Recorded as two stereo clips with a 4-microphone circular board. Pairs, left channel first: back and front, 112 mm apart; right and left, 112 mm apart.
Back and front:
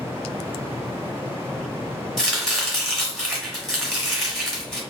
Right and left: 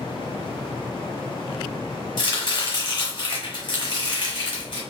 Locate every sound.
2.2 s chopping: 85° right, 1.2 m